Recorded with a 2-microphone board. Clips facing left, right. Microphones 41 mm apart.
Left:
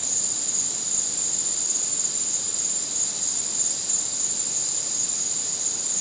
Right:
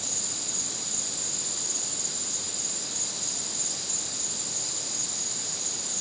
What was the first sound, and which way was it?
An insect, 5° right (ahead or behind).